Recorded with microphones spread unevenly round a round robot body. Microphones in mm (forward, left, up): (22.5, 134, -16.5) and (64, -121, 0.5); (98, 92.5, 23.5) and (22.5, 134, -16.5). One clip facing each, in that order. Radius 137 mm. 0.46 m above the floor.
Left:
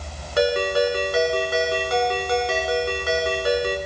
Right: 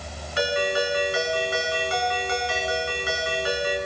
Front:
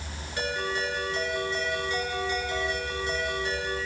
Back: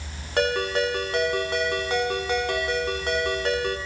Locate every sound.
0.4 s a ringtone: 155° left, 3.5 m